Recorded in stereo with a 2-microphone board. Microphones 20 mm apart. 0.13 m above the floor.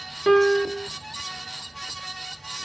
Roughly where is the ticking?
I don't hear ticking.